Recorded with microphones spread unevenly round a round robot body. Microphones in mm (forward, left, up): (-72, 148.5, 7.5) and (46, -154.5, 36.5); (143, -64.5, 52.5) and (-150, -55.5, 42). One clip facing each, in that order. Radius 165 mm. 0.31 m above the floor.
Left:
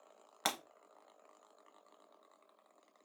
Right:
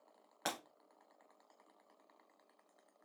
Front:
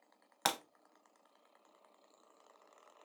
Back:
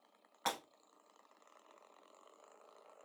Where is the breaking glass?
45° left, 0.7 m.